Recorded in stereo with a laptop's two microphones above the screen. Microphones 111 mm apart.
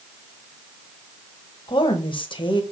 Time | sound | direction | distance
1.7 | a woman speaking | 50° left (ahead or behind) | 1.1 m